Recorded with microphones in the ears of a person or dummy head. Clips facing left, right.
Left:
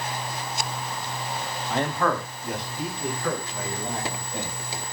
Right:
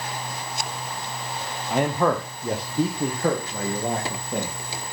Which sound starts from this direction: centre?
A man speaking, at 1.7 s.